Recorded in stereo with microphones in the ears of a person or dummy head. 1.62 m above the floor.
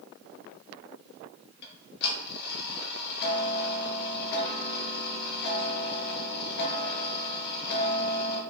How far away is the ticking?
About 0.8 m.